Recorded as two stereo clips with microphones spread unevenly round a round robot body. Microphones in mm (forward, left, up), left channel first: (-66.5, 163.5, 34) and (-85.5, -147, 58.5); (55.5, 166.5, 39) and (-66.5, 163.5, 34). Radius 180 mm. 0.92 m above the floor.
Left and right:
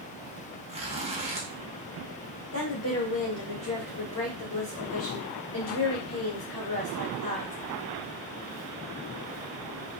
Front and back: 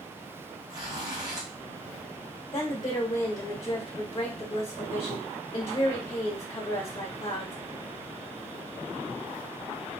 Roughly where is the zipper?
Behind.